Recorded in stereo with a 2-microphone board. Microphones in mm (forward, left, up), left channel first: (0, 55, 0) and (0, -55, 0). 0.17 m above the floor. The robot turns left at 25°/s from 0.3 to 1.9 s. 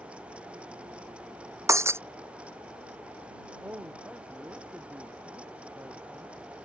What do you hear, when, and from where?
1.7 s breaking glass: 30° right (ahead or behind); by 2.0 s 25° right (ahead or behind)
3.6 s a woman speaking: 20° right (ahead or behind)